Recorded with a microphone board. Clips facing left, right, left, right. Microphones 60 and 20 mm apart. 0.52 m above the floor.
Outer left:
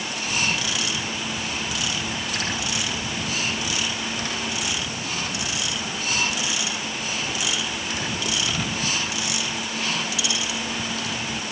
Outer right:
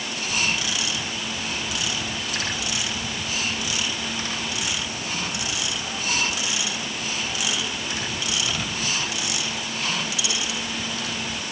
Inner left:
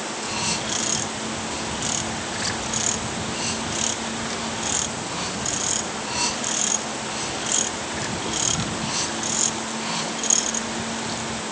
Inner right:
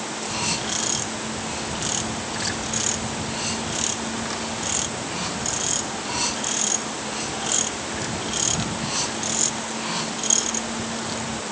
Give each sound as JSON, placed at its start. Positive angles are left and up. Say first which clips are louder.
{"t": 0.3, "sound": "a camera shutter", "louder": "even, even", "side_deg": 30}